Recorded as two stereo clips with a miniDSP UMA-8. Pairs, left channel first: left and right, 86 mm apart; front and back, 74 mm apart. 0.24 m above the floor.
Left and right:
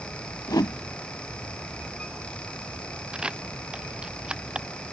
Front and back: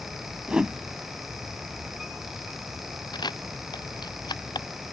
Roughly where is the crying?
No crying in this recording.